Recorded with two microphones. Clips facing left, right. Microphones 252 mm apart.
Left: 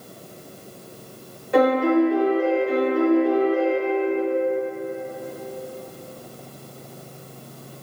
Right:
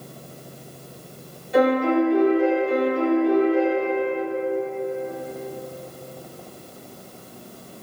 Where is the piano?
65° left (ahead or behind), 0.7 m.